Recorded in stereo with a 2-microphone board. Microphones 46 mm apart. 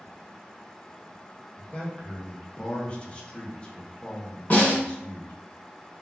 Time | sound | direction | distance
1.6 | a man speaking | 25° left (ahead or behind) | 0.6 m
4.5 | a snare drum | 40° left (ahead or behind) | 1.4 m